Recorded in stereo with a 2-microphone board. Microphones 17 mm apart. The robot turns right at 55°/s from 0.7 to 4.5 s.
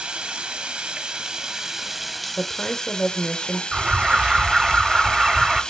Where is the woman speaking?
20° left (ahead or behind), 0.9 m; by 3.6 s 25° left (ahead or behind), 0.9 m.